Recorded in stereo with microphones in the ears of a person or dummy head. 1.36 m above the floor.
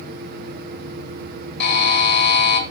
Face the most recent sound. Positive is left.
turn(degrees=65)  # may be behind; listen again after turning